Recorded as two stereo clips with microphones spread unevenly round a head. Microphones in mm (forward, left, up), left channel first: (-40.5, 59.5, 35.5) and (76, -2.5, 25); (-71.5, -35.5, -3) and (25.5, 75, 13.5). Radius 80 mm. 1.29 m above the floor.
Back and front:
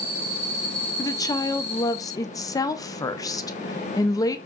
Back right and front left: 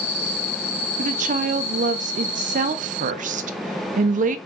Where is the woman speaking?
85° left, 0.5 m.